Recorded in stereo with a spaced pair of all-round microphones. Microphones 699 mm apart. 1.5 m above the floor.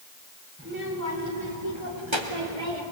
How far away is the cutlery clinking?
I don't hear cutlery clinking.